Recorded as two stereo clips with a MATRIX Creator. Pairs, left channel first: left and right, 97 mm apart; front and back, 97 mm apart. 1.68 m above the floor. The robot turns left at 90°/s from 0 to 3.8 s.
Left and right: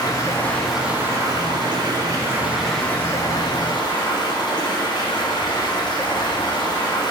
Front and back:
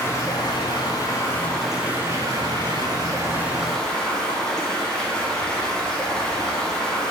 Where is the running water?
60° left, 0.8 m; by 7.1 s 80° left, 0.8 m.